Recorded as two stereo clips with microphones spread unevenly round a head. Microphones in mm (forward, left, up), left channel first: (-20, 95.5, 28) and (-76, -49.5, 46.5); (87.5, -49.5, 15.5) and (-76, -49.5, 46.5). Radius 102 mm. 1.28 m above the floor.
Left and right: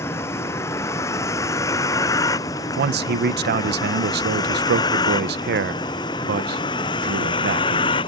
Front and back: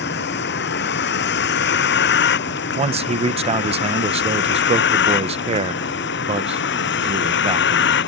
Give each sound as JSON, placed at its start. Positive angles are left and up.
{"t": 0.0, "sound": "a vehicle", "azimuth_deg": -10}
{"t": 2.8, "sound": "a man speaking", "azimuth_deg": -125}